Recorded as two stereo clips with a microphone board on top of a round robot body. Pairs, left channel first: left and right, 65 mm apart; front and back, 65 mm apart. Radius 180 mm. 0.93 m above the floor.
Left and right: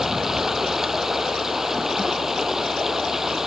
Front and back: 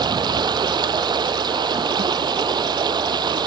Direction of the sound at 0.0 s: 175° right.